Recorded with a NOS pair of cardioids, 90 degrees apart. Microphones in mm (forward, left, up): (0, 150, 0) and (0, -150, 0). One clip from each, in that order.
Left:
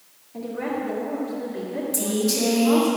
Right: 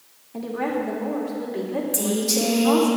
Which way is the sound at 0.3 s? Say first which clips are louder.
Right 2 dB; 35° right.